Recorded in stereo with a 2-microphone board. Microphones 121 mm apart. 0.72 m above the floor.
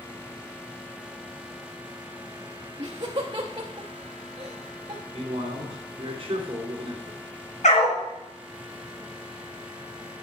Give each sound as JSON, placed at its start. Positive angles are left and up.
{"t": 2.8, "sound": "laughter", "side_deg": -40, "distance_m": 0.7}
{"t": 5.1, "sound": "a man speaking", "side_deg": -50, "distance_m": 2.0}
{"t": 7.6, "sound": "a dog barking", "side_deg": 85, "distance_m": 3.0}